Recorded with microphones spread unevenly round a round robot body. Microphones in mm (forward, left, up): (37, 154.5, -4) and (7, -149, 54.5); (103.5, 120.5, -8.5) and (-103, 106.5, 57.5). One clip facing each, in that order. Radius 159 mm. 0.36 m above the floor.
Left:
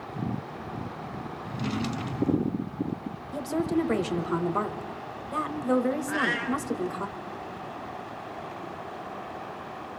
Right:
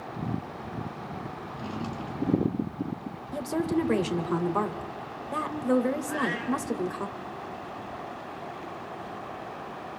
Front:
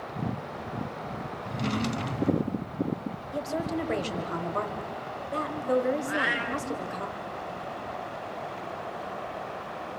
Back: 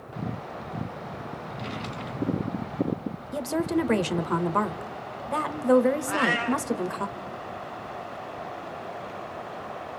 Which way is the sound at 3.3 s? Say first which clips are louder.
Even, back 6 dB; 170° left.